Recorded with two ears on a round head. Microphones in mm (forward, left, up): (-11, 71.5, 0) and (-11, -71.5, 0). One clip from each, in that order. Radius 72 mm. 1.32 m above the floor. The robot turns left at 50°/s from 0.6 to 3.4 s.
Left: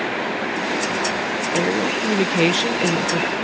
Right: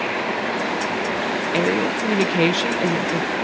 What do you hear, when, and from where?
1.5 s a woman speaking: 140° right; by 3.3 s 130° left